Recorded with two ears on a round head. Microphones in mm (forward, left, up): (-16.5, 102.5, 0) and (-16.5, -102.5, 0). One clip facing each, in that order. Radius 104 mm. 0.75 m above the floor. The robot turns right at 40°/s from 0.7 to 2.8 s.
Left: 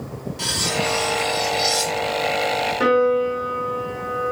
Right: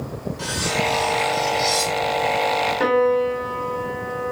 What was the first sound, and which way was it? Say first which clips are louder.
Cutlery clinking: even; 125° left.